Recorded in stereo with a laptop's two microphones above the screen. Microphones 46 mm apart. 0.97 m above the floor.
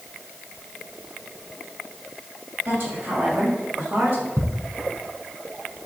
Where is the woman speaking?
60° right (ahead or behind), 6 m.